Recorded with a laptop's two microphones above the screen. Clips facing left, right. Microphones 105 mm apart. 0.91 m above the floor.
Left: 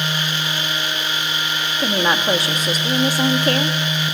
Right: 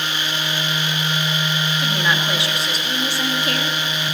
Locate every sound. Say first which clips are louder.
1.8 s a woman speaking: left 5 dB; 45° left (ahead or behind), 1.5 m